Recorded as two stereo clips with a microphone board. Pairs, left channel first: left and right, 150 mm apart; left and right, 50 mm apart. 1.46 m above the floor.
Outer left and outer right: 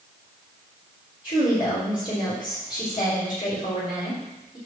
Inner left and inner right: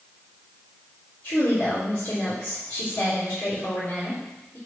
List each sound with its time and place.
1.2 s a woman speaking: 35° left (ahead or behind), 4 m